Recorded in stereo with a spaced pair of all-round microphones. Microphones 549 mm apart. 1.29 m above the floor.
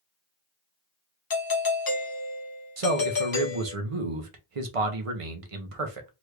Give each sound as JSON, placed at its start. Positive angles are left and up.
{"t": 1.3, "sound": "a doorbell", "side_deg": 40, "distance_m": 0.6}
{"t": 2.8, "sound": "a man speaking", "side_deg": -80, "distance_m": 0.8}